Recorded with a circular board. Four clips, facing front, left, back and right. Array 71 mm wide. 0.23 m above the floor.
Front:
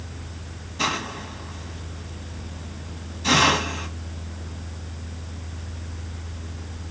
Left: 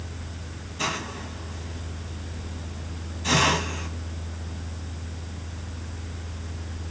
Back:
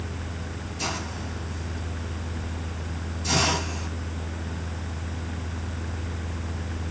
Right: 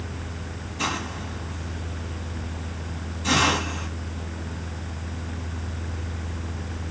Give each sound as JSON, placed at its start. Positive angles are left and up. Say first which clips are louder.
{"t": 0.8, "sound": "a hiss", "louder": "right 1 dB, front 6 dB", "azimuth_deg": 0, "distance_m": 1.9}